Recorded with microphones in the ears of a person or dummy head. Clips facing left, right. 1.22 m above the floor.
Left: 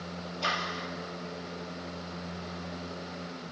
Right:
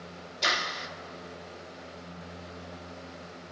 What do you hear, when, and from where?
0.4 s a clap: 25° right (ahead or behind), 2.5 m